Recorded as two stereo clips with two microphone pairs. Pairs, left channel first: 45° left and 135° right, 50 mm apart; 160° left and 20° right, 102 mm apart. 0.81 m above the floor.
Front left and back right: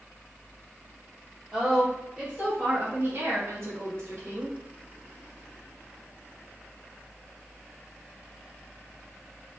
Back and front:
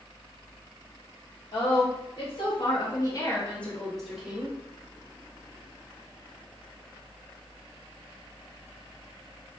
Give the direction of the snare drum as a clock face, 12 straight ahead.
No snare drum in this recording.